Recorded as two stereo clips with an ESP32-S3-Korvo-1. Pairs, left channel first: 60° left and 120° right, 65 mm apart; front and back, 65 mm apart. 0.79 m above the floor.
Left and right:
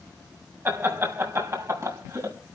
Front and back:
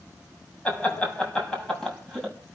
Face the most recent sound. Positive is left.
turn(degrees=-90)